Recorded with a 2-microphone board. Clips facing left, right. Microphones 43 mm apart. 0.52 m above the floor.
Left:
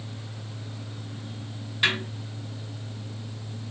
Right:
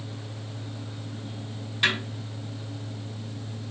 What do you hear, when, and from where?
1.8 s a snare drum: 5° left (ahead or behind), 1.3 m